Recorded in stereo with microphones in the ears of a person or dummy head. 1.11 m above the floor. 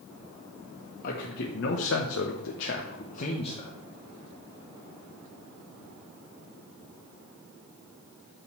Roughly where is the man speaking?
Left.